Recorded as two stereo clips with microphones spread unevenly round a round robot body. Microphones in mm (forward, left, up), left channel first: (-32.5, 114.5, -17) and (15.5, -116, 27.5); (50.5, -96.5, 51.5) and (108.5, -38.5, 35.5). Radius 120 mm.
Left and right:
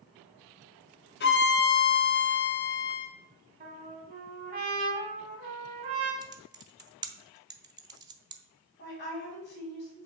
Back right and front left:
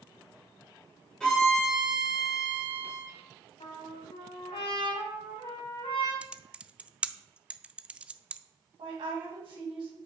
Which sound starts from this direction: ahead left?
A woman speaking, at 8.8 s.